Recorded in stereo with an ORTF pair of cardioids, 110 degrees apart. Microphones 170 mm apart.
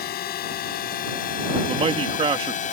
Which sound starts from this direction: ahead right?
A man speaking, at 1.7 s.